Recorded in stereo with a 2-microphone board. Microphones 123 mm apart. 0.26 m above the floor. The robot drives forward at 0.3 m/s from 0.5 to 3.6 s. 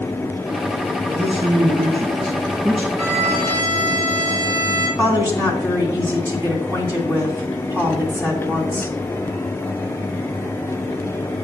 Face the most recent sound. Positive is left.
turn(degrees=-20)  # may be behind; listen again after turning